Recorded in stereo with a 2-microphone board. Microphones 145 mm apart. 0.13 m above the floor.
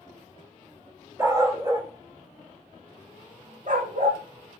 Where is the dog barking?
15° right (ahead or behind), 2.0 m; by 4.2 s 65° right (ahead or behind), 2.5 m.